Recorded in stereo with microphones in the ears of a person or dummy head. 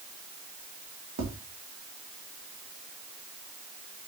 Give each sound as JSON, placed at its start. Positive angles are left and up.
{"t": 1.2, "sound": "tapping", "side_deg": -55, "distance_m": 1.5}